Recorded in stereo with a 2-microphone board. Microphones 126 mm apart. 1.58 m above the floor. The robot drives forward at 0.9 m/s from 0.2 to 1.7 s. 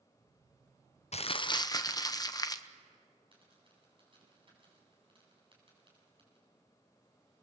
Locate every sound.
1.1 s crumpling: 55° left (ahead or behind), 0.5 m; by 2.7 s 30° left (ahead or behind), 0.9 m
3.3 s a dropped coin: 40° right (ahead or behind), 7 m